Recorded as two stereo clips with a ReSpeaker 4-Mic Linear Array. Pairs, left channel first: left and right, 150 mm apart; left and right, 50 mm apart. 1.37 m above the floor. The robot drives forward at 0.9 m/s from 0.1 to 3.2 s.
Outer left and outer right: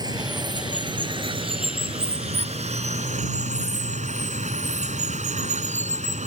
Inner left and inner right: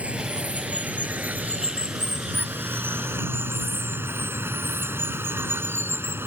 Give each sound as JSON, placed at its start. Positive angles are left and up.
{"t": 0.0, "sound": "running water", "side_deg": -25}